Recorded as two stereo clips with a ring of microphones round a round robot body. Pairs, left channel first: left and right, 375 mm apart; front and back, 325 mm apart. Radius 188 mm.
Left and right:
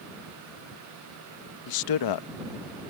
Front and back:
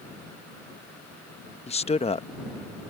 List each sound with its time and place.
1.7 s a man speaking: 70° left